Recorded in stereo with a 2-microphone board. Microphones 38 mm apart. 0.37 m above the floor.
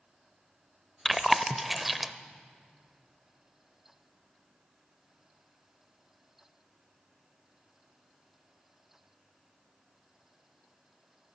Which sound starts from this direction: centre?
Chewing, at 1.1 s.